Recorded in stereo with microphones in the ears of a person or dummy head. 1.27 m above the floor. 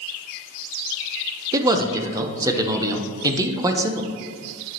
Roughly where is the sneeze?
I don't hear a sneeze.